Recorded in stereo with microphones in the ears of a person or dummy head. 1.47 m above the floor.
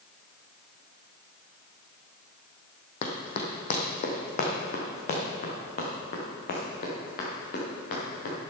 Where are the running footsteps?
35° left (ahead or behind), 2.5 m; by 8.3 s 50° left (ahead or behind), 6 m.